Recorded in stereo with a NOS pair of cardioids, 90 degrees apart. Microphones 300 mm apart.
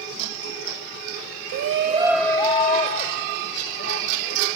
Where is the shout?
65° right, 0.6 m; by 4.5 s 45° left, 2.5 m.